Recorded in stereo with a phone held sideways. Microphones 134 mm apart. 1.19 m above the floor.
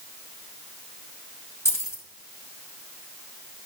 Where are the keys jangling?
20° left (ahead or behind), 1.3 m.